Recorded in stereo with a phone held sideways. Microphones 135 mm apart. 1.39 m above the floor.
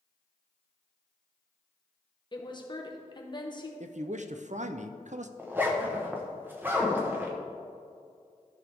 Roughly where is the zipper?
Centre.